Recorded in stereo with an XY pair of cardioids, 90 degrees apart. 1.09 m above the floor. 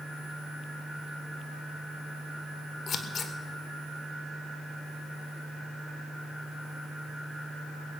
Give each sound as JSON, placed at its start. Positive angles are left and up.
{"t": 2.9, "sound": "scissors", "azimuth_deg": 55, "distance_m": 1.6}